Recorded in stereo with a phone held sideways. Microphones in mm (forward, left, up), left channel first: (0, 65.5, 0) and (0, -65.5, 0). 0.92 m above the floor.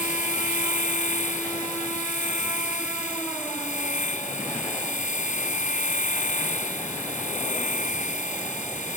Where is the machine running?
85° left.